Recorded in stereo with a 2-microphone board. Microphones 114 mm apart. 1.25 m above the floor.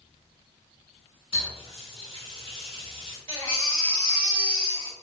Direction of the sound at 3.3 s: 30° left (ahead or behind).